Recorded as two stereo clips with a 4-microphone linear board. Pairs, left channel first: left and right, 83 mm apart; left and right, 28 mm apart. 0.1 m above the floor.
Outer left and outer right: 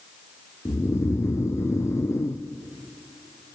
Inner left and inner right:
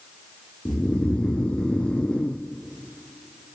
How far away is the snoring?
About 1.3 m.